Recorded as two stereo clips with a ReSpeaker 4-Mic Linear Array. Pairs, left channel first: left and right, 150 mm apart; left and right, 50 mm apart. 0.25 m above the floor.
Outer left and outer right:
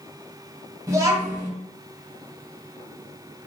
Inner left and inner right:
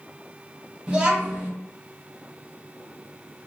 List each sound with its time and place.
0.9 s a child speaking: 20° right (ahead or behind), 0.7 m